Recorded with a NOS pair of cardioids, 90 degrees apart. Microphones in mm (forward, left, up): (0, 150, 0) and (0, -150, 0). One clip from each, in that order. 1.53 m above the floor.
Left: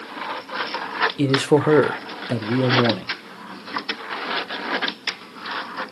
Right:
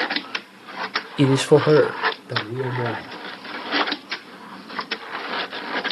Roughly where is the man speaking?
Ahead right.